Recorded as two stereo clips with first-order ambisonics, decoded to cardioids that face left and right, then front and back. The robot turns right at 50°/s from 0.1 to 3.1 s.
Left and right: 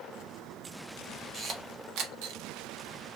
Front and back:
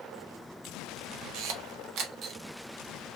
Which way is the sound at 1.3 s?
165° right.